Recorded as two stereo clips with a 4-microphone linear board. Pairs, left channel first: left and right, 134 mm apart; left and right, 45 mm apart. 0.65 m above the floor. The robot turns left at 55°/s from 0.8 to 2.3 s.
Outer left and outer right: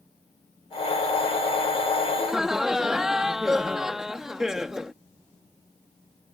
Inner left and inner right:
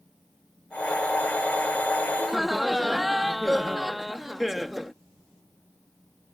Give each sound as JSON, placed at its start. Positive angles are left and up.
{"t": 2.2, "sound": "laughter", "side_deg": -5}